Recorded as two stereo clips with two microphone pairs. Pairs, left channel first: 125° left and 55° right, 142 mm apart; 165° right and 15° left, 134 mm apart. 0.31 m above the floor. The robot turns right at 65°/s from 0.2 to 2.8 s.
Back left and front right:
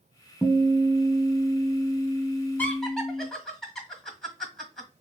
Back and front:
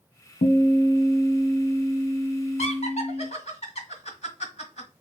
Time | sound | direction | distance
0.4 | a guitar | 145° right | 0.6 m
2.6 | laughter | 165° right | 1.5 m